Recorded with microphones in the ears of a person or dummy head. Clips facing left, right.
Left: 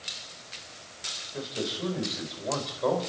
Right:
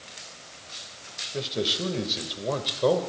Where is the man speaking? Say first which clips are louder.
Right 4 dB; 40° right (ahead or behind), 6 m; by 3.0 s 45° right (ahead or behind), 5 m.